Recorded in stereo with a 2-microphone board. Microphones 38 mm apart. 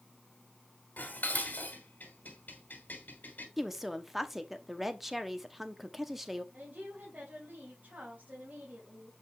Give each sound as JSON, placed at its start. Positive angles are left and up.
{"t": 1.0, "sound": "dishes clattering", "side_deg": 55, "distance_m": 2.0}
{"t": 3.6, "sound": "a woman speaking", "side_deg": -5, "distance_m": 0.8}
{"t": 6.5, "sound": "a woman speaking", "side_deg": -45, "distance_m": 3.5}